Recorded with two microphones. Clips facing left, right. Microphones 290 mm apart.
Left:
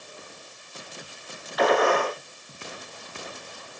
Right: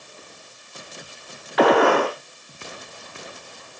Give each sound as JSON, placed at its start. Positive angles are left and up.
{"t": 1.6, "sound": "a gunshot", "side_deg": -70, "distance_m": 0.9}